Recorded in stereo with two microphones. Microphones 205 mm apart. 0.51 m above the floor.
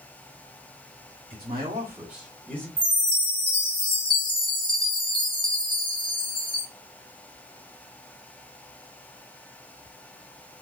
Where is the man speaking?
30° right (ahead or behind), 1.3 m; by 2.7 s 10° left (ahead or behind), 1.9 m.